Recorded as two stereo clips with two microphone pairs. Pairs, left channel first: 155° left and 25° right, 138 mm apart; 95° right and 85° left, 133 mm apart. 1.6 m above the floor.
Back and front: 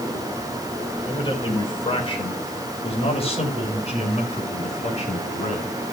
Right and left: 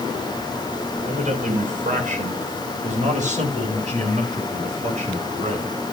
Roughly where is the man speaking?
Left.